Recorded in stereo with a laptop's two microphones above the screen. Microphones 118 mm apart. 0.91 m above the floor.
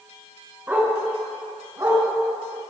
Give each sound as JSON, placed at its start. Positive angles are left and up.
{"t": 0.7, "sound": "a dog barking", "side_deg": -15, "distance_m": 4.5}